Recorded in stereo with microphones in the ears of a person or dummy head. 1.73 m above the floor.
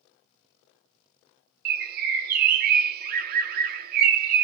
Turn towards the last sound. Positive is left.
turn(degrees=-50)  # may be behind; listen again after turning